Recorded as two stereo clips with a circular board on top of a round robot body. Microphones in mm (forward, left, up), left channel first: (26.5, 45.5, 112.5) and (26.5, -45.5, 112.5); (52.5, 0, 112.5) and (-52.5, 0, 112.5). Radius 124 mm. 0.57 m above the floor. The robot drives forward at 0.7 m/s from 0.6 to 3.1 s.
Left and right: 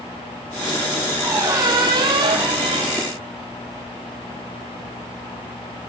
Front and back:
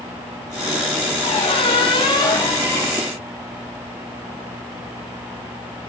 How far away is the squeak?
About 2.0 m.